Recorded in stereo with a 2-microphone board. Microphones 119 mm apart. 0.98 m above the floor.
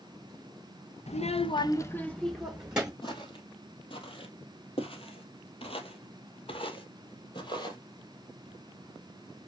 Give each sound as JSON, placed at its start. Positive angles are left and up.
{"t": 1.1, "sound": "a child speaking", "side_deg": 70, "distance_m": 0.6}
{"t": 3.0, "sound": "footsteps", "side_deg": 45, "distance_m": 2.0}